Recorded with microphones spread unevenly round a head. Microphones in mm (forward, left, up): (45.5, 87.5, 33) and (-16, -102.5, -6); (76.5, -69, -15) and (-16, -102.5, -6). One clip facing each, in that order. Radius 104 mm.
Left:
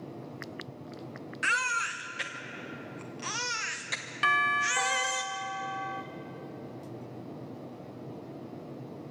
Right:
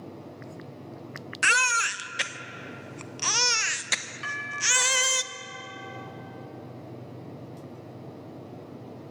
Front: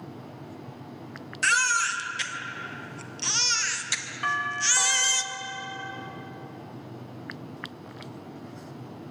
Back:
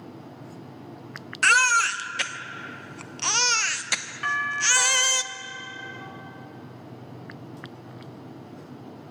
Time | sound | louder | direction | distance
1.4 | a baby crying | right 5 dB, back 4 dB | 145° right | 0.8 m
4.2 | a doorbell | left 5 dB, back 1 dB | 95° left | 0.8 m